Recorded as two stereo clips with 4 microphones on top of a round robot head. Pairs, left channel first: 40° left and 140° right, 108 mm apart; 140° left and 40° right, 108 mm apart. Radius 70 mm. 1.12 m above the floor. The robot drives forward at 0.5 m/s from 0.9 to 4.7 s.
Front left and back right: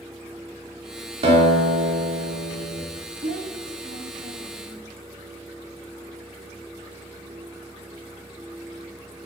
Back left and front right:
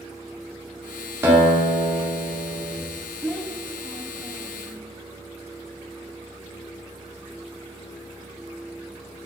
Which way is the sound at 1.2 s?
110° right.